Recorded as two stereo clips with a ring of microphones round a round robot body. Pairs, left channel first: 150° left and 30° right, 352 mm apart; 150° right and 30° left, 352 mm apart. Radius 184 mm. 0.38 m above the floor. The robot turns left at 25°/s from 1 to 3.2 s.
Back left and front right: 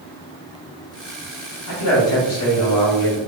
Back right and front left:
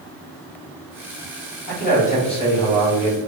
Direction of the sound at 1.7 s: 160° left.